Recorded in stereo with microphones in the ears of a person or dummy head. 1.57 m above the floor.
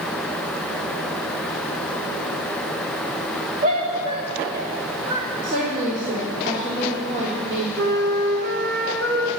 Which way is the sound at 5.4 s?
40° right (ahead or behind).